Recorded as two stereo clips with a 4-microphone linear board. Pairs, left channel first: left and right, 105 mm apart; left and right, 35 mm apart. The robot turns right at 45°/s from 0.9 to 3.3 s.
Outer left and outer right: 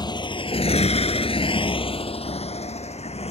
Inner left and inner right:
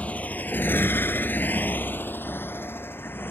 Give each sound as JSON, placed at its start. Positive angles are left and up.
{"t": 0.0, "sound": "a motorcycle", "side_deg": 45}